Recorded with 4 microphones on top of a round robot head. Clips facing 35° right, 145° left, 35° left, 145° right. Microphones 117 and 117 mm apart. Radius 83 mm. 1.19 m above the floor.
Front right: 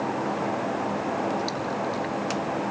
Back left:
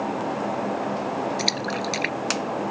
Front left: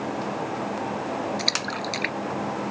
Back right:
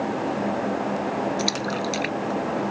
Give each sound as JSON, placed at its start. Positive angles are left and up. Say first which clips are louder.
{"t": 1.4, "sound": "a splash", "louder": "back left 1 dB, back right 4 dB", "azimuth_deg": 135}